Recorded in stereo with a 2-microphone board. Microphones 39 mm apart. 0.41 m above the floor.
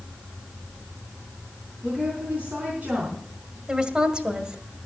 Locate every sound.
1.8 s a woman speaking: 35° right (ahead or behind), 4 m
3.7 s a woman speaking: 25° right (ahead or behind), 1.7 m